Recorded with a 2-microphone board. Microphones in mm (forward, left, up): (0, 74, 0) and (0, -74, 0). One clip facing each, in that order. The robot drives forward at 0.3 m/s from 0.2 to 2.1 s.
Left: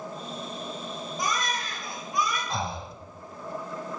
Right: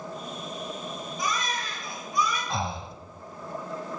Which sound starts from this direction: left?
A baby crying, at 1.2 s.